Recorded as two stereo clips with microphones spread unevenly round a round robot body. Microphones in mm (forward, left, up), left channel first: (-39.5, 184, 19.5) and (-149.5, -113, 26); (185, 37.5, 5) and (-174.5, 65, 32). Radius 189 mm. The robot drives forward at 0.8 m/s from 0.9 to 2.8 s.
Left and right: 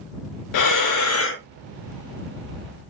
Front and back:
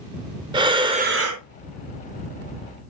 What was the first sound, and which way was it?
Breathing, 95° left.